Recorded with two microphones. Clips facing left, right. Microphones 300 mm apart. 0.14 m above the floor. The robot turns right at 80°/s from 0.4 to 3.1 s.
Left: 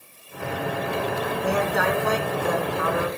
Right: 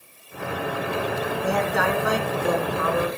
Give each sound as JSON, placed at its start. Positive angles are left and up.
{"t": 1.4, "sound": "a woman speaking", "azimuth_deg": 155, "distance_m": 1.8}